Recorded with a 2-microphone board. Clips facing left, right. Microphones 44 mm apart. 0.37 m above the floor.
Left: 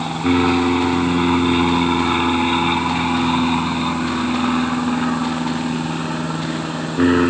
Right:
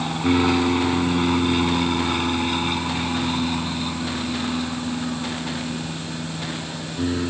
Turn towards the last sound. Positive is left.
turn(degrees=50)  # may be behind; listen again after turning